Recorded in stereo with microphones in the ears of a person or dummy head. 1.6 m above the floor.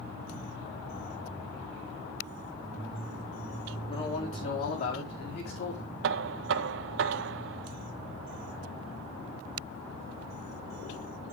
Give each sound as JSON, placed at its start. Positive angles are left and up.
{"t": 3.9, "sound": "a man speaking", "side_deg": 25, "distance_m": 4.5}
{"t": 6.0, "sound": "knocking", "side_deg": -60, "distance_m": 0.5}